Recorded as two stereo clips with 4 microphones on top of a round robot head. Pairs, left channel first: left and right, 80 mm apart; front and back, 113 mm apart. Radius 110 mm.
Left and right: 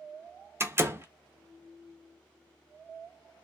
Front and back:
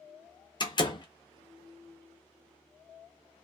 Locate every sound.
0.6 s a door slam: 35° right, 0.7 m